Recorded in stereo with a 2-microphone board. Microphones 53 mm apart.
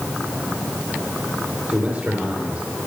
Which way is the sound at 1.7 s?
20° right (ahead or behind).